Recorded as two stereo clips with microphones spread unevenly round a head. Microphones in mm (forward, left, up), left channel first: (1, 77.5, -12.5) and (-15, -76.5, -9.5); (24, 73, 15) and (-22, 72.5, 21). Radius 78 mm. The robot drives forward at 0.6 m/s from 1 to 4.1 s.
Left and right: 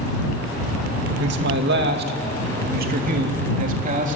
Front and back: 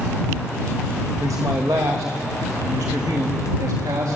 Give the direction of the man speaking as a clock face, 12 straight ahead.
4 o'clock.